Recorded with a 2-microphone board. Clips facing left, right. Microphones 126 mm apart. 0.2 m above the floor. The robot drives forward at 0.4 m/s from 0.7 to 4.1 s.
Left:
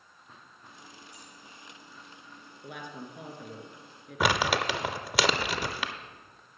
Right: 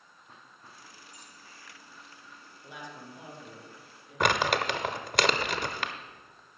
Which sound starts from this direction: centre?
Crumpling, at 4.2 s.